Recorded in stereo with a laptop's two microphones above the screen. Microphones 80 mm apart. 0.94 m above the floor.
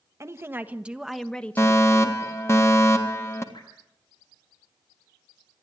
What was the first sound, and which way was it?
A woman speaking, 35° right (ahead or behind).